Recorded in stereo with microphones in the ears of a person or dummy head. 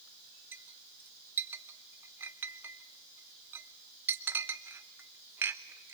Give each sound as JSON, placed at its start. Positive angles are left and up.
{"t": 0.5, "sound": "a clink", "side_deg": -10, "distance_m": 0.6}